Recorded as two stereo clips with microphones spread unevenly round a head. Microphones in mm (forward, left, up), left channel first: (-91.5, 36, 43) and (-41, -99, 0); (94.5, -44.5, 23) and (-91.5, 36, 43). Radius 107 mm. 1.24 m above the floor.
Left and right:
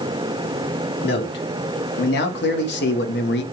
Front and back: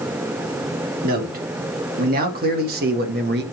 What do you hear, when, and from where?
1.0 s a man speaking: 105° left, 3 m; by 3.4 s 110° left, 1.5 m